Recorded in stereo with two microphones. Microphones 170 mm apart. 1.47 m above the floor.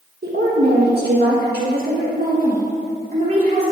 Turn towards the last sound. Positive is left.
turn(degrees=-45)  # may be behind; listen again after turning